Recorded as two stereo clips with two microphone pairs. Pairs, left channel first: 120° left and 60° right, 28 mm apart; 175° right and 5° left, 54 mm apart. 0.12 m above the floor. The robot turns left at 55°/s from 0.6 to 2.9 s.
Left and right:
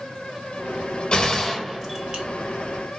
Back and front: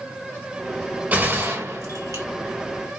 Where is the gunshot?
65° left, 1.7 m; by 2.2 s 5° left, 1.7 m.